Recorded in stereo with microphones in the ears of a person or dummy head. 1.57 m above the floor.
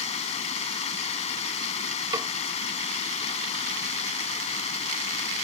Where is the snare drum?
25° right (ahead or behind).